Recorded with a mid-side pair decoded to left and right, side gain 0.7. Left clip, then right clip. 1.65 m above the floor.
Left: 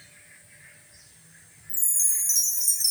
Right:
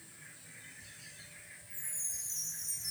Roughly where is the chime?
Left.